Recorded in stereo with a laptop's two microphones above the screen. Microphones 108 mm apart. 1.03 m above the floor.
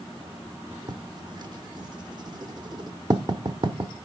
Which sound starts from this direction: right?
Writing, at 0.9 s.